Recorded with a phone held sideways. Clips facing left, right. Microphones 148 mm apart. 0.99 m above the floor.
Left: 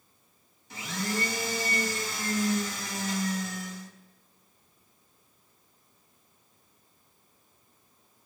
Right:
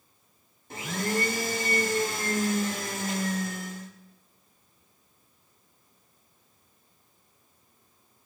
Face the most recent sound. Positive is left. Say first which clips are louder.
# right 3 dB
turn(degrees=-50)  # may be behind; listen again after turning